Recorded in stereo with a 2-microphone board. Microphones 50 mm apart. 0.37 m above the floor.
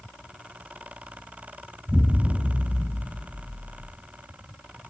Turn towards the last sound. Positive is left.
turn(degrees=-5)  # may be behind; listen again after turning